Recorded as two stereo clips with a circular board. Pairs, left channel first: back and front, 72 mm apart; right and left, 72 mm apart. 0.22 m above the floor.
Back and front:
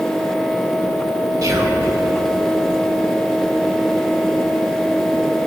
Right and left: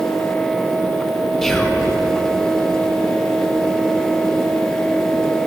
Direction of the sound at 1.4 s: 5° right.